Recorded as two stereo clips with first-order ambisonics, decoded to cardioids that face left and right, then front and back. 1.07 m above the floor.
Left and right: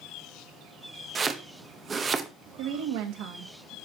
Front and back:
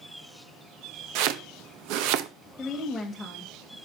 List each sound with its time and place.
1.1 s chopping: 160° right, 0.6 m
2.6 s a woman speaking: 80° right, 1.6 m